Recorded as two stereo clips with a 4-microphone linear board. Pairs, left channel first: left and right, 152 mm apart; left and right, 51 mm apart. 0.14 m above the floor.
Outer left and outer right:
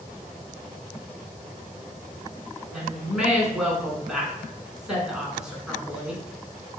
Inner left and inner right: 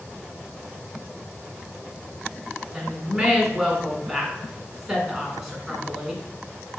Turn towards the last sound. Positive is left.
turn(degrees=-5)  # may be behind; listen again after turning